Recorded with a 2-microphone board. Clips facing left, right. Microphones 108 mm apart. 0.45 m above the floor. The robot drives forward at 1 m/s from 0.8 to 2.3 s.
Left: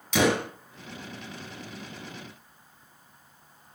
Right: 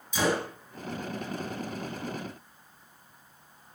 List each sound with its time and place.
0.1 s a gunshot: 75° left (ahead or behind), 3 m